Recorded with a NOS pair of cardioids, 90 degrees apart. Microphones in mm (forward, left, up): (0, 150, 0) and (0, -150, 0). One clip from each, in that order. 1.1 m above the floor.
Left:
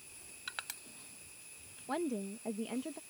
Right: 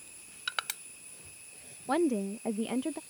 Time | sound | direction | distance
0.5 | crushing | 50° right | ?
1.9 | a woman speaking | 35° right | ?